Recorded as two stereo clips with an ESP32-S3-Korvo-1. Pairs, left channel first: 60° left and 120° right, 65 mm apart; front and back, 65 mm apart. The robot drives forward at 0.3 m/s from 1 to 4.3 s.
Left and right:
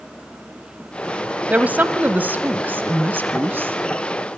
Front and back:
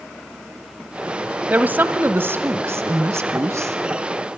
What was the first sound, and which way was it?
A woman speaking, 150° right.